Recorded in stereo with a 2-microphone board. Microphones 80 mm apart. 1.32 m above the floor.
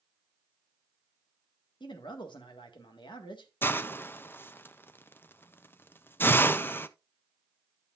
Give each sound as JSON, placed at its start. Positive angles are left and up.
{"t": 1.8, "sound": "a man speaking", "side_deg": 75, "distance_m": 1.7}
{"t": 3.6, "sound": "a hiss", "side_deg": 25, "distance_m": 0.5}